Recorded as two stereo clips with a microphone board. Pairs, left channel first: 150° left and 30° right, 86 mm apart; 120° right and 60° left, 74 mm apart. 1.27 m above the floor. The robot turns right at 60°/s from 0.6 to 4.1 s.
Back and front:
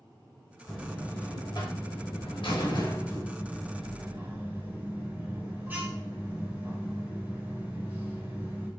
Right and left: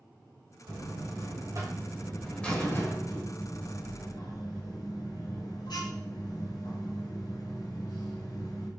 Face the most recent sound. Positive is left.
turn(degrees=-100)